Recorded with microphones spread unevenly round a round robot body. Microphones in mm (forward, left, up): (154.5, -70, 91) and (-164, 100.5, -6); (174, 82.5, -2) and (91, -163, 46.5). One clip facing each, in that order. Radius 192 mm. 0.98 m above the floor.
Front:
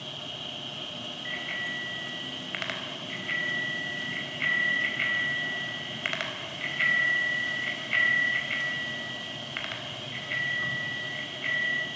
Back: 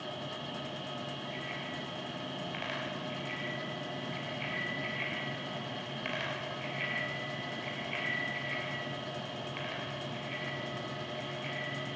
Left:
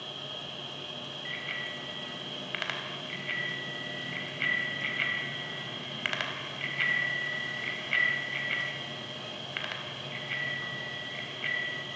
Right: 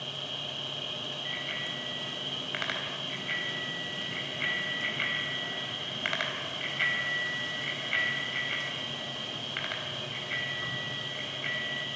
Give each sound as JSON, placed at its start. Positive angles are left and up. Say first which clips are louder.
{"t": 0.0, "sound": "an insect", "louder": "back 2 dB, right 1 dB", "azimuth_deg": -60, "distance_m": 4.0}
{"t": 1.2, "sound": "a bicycle bell", "louder": "back 1 dB, right 2 dB", "azimuth_deg": 15, "distance_m": 4.0}